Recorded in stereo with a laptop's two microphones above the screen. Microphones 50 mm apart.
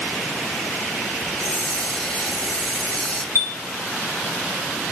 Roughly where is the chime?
Left.